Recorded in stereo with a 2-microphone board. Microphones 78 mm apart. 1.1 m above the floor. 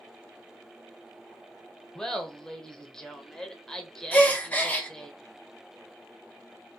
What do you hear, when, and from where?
1.9 s laughter: 5° left (ahead or behind), 0.9 m
4.1 s a gasp: 20° left (ahead or behind), 0.8 m